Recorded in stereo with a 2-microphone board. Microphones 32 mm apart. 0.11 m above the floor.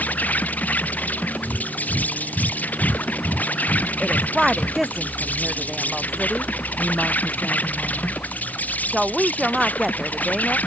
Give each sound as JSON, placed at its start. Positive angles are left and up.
{"t": 0.0, "sound": "an insect", "side_deg": 60}
{"t": 1.4, "sound": "breathing", "side_deg": 65}
{"t": 4.0, "sound": "a woman speaking", "side_deg": -5}